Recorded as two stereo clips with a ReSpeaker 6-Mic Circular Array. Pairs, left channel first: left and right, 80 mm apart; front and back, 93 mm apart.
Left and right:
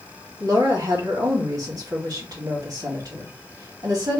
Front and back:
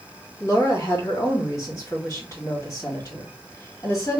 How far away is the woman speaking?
About 2 m.